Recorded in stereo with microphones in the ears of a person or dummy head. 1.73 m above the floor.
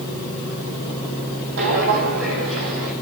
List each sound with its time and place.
1.6 s footsteps: 60° right (ahead or behind), 4 m; by 2.9 s 70° right (ahead or behind), 5 m